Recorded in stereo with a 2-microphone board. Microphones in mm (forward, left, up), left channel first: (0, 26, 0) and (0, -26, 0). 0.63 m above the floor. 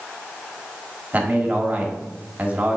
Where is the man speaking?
30° right (ahead or behind), 1.4 m.